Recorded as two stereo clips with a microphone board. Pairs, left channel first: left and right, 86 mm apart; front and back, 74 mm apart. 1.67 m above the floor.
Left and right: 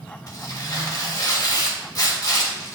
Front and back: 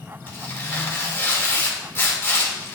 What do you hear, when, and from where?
0.3 s tearing paper: 55° left, 1.7 m